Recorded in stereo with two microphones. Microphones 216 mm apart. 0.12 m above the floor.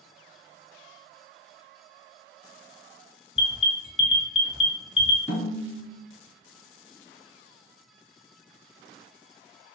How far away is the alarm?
About 1.0 m.